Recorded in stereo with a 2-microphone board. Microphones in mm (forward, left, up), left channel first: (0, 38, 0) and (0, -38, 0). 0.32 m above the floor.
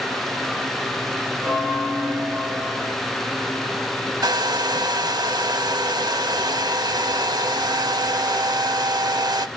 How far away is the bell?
About 4.5 m.